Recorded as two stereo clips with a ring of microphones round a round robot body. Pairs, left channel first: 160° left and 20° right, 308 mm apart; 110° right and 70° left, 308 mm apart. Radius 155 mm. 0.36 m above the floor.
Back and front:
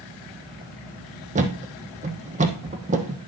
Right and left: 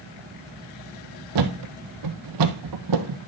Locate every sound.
1.4 s a thud: 45° left, 1.7 m